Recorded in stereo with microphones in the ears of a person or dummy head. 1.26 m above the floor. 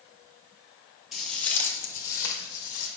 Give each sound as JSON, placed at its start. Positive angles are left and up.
{"t": 1.1, "sound": "footsteps", "side_deg": 0, "distance_m": 1.4}